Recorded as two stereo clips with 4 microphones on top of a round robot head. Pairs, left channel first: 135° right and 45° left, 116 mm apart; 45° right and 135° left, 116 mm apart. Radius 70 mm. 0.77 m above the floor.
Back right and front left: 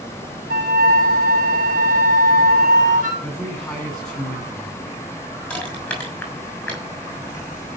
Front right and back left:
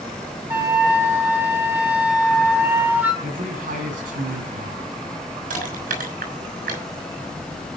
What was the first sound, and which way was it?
A flute, 65° left.